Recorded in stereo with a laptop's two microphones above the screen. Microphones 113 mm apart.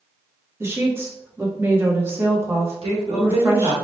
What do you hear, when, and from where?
0.6 s a woman speaking: 20° right (ahead or behind), 1.1 m
2.8 s a woman speaking: 55° right (ahead or behind), 1.4 m